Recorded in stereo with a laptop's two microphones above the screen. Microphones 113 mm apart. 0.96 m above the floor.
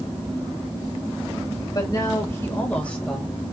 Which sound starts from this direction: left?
A woman speaking, at 1.7 s.